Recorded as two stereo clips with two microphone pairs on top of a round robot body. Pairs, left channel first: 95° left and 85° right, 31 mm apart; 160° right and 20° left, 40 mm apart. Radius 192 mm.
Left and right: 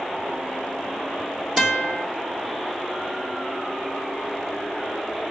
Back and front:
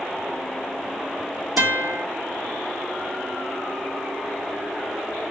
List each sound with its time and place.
1.6 s a guitar: 5° right, 1.2 m